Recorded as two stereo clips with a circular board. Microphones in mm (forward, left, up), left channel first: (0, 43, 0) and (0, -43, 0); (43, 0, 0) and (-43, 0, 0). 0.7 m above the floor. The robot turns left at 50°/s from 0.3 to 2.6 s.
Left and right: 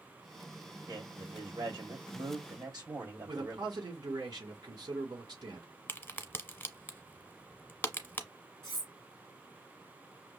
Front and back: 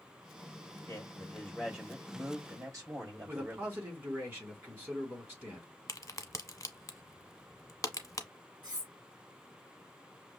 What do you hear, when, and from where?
0.9 s a man speaking: 45° right, 3 m; by 3.8 s 130° right, 3 m
3.3 s a man speaking: 115° right, 2.5 m
5.9 s a crack: 35° left, 0.8 m
8.6 s cutlery clinking: 135° right, 3 m